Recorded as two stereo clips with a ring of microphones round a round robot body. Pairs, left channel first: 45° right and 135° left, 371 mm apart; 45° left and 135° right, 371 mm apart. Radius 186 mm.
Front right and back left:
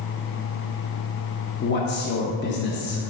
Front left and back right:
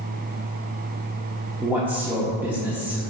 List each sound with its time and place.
1.6 s a man speaking: 55° right, 0.7 m